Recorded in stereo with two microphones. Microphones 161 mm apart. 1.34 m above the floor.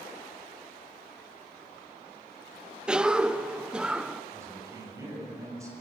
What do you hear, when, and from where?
2.9 s a cough: 5° right (ahead or behind), 0.6 m
4.3 s a man speaking: 20° right (ahead or behind), 6.5 m